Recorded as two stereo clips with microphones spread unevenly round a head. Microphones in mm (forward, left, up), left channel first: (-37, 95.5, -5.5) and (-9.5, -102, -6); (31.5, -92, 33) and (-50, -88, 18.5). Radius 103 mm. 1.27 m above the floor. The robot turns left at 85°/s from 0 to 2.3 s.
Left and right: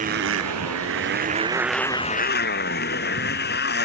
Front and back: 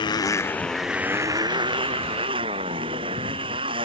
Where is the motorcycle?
25° right; by 3.9 s 135° left.